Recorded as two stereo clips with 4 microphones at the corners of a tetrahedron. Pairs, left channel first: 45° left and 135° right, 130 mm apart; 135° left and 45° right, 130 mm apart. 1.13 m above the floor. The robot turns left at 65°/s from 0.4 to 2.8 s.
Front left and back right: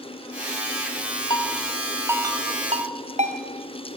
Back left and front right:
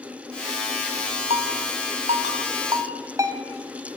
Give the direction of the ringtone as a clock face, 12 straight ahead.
12 o'clock.